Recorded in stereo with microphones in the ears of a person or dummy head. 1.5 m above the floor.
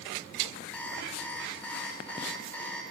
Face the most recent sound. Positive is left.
turn(degrees=10)  # may be behind; listen again after turning